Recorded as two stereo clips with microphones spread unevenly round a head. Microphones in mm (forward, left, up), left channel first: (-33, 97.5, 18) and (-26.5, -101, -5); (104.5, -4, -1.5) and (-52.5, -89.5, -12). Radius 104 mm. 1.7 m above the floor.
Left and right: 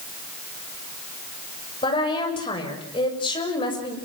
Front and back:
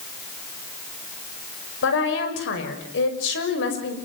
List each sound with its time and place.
1.8 s a woman speaking: 25° left, 6.5 m